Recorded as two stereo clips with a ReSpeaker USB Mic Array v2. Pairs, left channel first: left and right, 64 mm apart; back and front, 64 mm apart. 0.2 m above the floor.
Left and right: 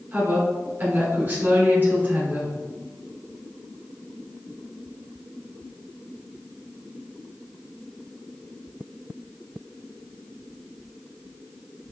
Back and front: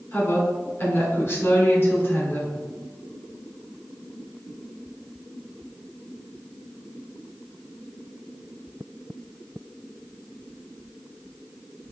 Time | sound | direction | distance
0.1 | a woman speaking | 140° right | 1.7 m